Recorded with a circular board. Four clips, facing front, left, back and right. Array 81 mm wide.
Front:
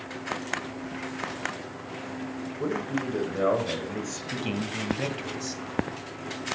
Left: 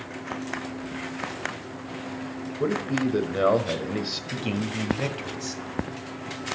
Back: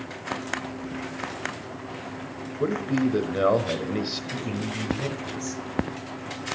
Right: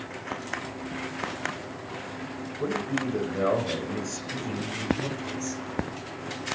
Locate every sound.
2.6 s a man speaking: 130° left, 1.2 m
4.3 s a man speaking: 55° left, 1.5 m